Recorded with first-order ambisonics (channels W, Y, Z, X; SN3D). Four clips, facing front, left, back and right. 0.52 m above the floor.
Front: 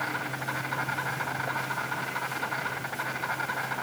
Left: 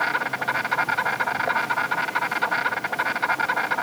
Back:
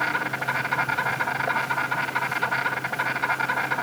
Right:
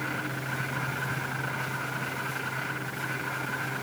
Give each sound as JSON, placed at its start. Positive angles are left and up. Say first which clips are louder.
{"t": 0.0, "sound": "an insect", "louder": "left 9 dB, back 6 dB", "azimuth_deg": 110, "distance_m": 1.8}